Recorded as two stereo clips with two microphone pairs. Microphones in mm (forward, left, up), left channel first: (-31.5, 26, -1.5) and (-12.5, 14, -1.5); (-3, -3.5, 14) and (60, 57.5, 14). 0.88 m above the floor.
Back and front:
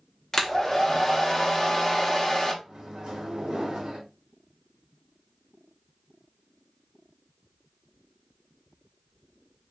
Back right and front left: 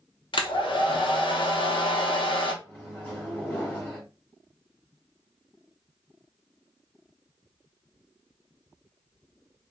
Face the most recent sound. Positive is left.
turn(degrees=-65)